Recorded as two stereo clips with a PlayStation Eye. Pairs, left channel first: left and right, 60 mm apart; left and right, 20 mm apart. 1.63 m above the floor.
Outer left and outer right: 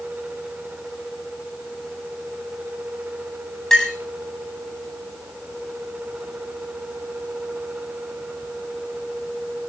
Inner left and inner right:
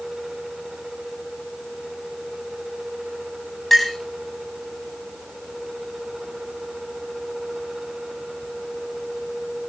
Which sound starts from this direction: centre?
A clink, at 3.7 s.